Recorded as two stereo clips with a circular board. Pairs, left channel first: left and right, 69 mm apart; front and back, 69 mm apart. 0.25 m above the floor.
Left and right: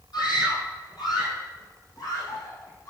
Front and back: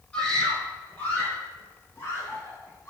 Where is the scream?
75° left, 7 m; by 2.9 s 50° left, 9 m.